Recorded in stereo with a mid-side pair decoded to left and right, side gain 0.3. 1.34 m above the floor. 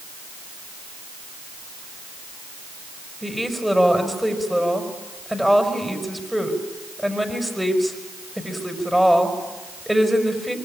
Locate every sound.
3.2 s a woman speaking: 5° right, 5.5 m